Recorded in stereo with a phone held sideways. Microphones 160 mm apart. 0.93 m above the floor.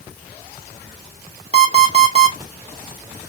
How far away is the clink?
I don't hear a clink.